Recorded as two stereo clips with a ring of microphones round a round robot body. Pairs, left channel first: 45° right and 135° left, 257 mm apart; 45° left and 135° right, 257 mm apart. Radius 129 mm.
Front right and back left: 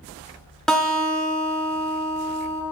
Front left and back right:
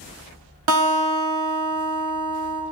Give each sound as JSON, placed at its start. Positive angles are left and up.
{"t": 0.7, "sound": "a guitar", "azimuth_deg": -130, "distance_m": 1.0}